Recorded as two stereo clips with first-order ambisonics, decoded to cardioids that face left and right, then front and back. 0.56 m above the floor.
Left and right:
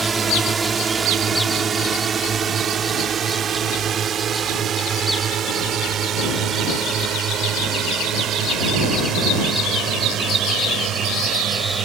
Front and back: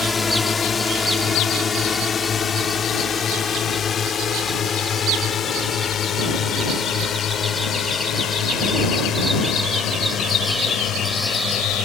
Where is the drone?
45° right; by 11.9 s 50° right.